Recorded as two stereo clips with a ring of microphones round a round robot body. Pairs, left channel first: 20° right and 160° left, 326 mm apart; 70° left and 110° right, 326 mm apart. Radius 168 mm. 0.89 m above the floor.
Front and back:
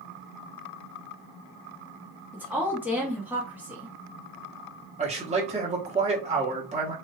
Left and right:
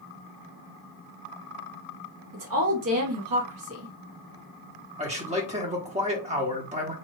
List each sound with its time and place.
2.3 s a woman speaking: 120° right, 1.3 m
5.0 s a man speaking: 155° right, 1.0 m